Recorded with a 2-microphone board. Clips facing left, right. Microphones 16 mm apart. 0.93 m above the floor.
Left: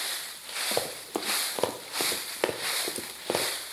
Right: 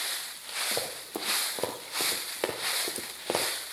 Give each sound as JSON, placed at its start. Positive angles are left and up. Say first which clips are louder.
{"t": 0.7, "sound": "running footsteps", "louder": "left 3 dB", "side_deg": 40, "distance_m": 1.5}